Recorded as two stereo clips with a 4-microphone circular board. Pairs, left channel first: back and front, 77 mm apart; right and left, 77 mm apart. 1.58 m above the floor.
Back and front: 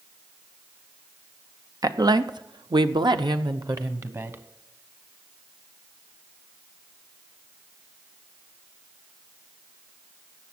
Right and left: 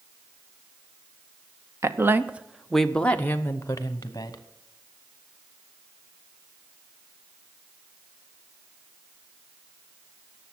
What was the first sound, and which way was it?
A woman speaking, 40° left.